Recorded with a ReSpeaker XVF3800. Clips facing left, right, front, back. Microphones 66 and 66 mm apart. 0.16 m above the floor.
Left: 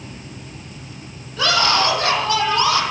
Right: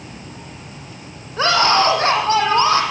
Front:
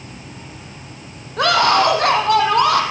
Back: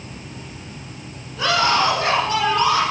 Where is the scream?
30° right, 5.5 m.